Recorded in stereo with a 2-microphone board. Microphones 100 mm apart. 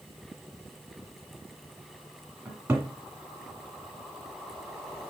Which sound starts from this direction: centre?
A cupboard door, at 2.5 s.